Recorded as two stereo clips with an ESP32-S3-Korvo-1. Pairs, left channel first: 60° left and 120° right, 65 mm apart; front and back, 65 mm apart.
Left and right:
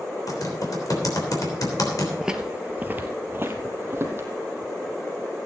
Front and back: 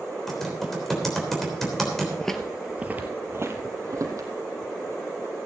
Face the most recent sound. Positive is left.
turn(degrees=-165)